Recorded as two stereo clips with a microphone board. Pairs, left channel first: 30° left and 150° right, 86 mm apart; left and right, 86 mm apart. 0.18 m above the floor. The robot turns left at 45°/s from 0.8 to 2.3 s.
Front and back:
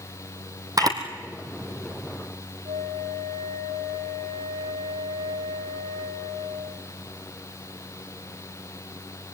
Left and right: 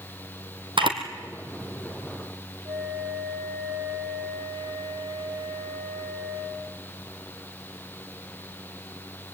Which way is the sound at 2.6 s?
135° right.